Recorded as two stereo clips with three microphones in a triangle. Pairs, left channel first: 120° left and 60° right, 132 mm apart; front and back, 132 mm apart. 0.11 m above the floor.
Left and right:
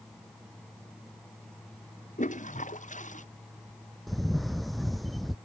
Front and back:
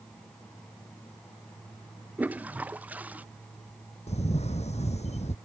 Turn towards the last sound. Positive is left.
turn(degrees=30)